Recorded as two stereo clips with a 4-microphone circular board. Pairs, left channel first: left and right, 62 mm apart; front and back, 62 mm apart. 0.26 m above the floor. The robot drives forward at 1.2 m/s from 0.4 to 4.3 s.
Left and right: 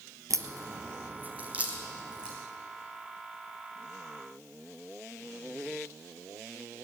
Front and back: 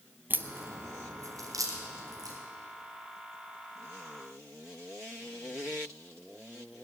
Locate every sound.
0.3 s a crack: 125° right, 0.9 m; by 2.4 s 165° right, 3 m